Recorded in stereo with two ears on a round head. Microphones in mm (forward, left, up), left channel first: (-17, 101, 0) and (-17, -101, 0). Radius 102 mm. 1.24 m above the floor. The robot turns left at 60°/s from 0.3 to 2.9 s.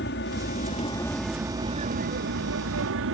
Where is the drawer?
No drawer in this recording.